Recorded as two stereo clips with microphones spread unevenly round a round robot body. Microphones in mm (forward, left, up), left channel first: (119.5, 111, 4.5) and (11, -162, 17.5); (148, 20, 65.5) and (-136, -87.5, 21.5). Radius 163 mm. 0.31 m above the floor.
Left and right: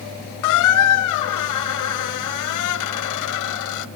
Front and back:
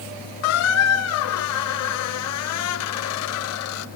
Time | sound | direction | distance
0.4 | a squeak | 65° left | 0.8 m